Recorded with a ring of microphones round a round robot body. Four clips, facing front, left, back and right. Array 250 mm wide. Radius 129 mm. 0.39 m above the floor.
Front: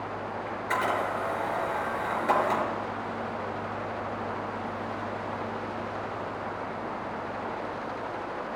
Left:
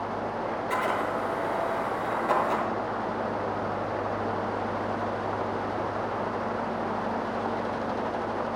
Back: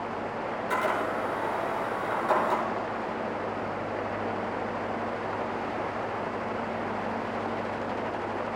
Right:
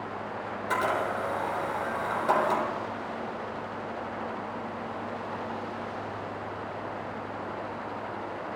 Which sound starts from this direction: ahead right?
A camera shutter, at 0.5 s.